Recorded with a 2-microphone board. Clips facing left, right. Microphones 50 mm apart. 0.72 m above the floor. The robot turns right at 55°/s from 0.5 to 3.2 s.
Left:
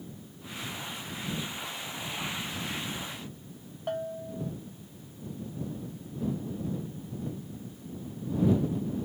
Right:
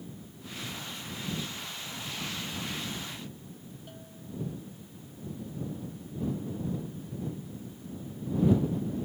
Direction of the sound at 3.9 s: 70° left (ahead or behind).